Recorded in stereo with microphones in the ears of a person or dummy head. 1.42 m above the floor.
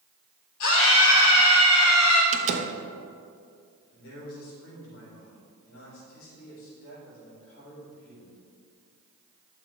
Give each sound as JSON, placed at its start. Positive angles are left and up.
{"t": 0.6, "sound": "a scream", "side_deg": 75, "distance_m": 2.5}
{"t": 2.3, "sound": "a door slam", "side_deg": -40, "distance_m": 1.1}
{"t": 3.9, "sound": "a man speaking", "side_deg": 85, "distance_m": 4.0}